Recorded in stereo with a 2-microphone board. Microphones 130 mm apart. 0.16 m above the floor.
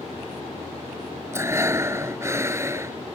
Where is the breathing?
20° right (ahead or behind).